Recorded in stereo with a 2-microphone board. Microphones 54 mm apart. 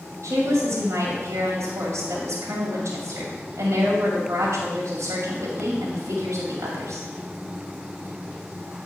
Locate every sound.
0.2 s a woman speaking: 65° right (ahead or behind), 2 m